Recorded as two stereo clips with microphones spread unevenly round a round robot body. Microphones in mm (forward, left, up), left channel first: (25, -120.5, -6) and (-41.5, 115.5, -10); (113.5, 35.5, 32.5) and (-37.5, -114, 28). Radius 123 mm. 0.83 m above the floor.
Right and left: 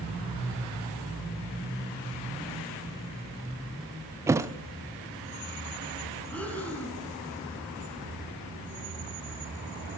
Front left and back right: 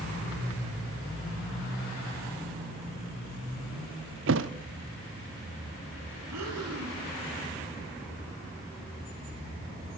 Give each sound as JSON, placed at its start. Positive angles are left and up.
{"t": 4.3, "sound": "a thud", "azimuth_deg": -175, "distance_m": 0.5}
{"t": 6.3, "sound": "breathing", "azimuth_deg": -160, "distance_m": 3.0}